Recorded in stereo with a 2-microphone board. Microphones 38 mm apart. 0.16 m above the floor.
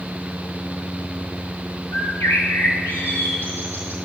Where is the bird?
75° left (ahead or behind), 5.5 m.